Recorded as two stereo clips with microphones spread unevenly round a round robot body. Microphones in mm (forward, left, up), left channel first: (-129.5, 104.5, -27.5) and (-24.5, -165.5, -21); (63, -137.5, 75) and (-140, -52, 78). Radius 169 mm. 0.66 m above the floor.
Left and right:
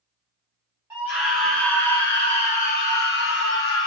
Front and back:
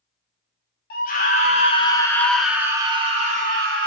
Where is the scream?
15° left, 1.2 m; by 3.9 s 140° left, 1.1 m.